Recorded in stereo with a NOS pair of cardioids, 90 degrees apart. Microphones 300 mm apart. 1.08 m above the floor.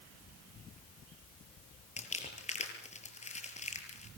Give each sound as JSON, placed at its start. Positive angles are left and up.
{"t": 2.0, "sound": "crumpling", "azimuth_deg": 25, "distance_m": 6.5}